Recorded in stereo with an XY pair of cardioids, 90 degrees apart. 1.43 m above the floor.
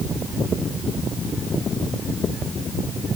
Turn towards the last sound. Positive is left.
No sound to turn to.